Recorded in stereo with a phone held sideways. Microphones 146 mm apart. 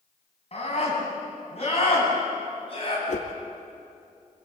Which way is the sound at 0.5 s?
45° left (ahead or behind).